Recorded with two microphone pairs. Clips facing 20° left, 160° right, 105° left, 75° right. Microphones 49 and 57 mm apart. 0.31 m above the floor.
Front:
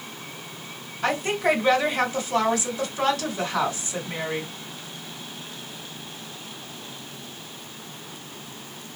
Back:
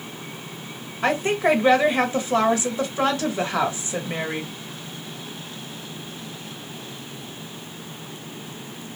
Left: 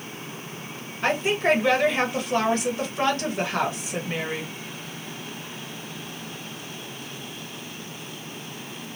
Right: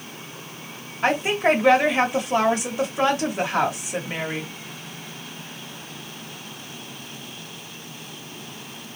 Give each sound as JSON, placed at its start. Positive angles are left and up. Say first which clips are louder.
{"t": 1.0, "sound": "a woman speaking", "louder": "back 3 dB, right 2 dB", "azimuth_deg": -135, "distance_m": 1.0}